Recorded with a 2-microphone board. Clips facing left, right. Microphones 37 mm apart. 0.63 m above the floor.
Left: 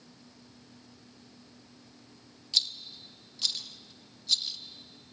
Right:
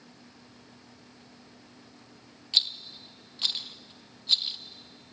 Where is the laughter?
No laughter in this recording.